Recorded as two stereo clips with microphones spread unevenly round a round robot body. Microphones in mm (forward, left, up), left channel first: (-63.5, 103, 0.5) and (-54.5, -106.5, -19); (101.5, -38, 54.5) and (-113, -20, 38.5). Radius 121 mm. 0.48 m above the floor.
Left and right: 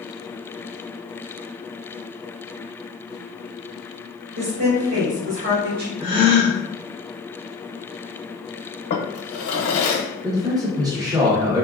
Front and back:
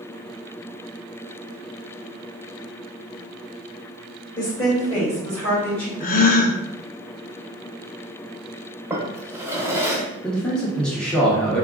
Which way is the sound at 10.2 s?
95° right.